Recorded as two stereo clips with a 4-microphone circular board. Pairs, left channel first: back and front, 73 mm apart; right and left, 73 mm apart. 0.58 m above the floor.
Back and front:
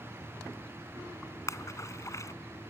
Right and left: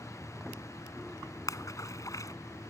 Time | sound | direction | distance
1.5 | a splash | 130° right | ?